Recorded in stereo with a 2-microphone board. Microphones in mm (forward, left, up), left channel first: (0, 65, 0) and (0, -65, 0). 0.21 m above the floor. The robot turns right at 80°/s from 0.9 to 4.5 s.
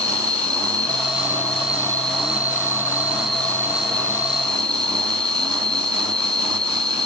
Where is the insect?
125° left, 0.7 m; by 7.1 s 50° left, 0.7 m.